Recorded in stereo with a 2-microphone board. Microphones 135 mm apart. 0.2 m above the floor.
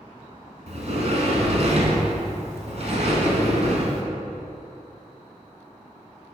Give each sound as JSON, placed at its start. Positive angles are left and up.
{"t": 0.7, "sound": "a sliding door", "side_deg": -55, "distance_m": 1.2}